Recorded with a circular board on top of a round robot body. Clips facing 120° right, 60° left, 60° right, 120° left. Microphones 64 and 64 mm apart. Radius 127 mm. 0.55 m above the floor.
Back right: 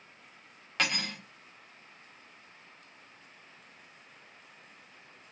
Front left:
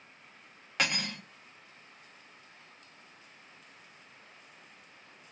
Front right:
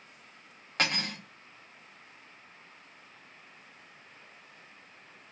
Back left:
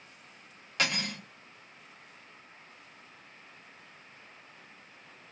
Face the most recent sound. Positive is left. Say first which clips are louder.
# even, front right 1 dB
turn(degrees=-20)